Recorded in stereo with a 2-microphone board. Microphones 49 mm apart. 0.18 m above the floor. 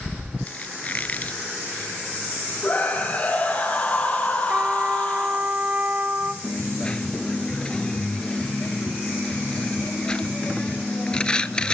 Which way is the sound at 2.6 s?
25° left (ahead or behind).